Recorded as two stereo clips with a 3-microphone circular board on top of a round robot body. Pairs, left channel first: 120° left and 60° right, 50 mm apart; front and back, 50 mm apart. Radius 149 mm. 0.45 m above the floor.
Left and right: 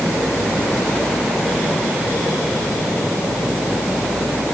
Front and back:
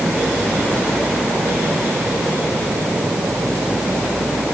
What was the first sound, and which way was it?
Only background noise.